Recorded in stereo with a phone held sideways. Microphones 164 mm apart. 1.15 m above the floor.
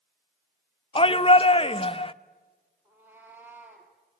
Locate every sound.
0.9 s a shout: 30° left (ahead or behind), 0.5 m
2.9 s a cat meowing: 10° right (ahead or behind), 3.5 m